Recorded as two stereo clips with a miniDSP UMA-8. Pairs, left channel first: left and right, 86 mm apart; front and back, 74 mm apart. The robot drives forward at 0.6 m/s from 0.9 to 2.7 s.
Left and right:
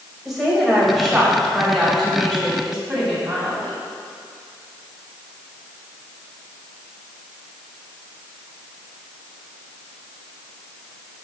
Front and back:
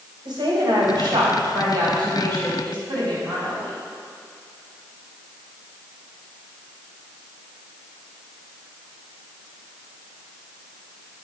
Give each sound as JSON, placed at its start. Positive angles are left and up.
{"t": 0.2, "sound": "a woman speaking", "azimuth_deg": -175, "distance_m": 3.0}